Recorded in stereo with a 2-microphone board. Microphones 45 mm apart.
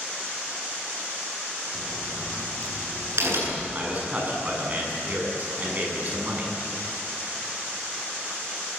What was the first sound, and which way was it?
A crack, 70° right (ahead or behind).